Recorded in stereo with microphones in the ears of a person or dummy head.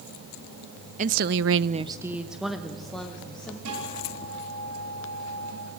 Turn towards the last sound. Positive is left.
turn(degrees=-75)  # may be behind; listen again after turning